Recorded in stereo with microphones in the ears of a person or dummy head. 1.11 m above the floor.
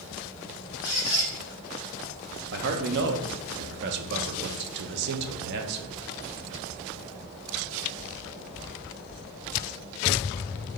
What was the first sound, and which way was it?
A squeak, 10° right (ahead or behind).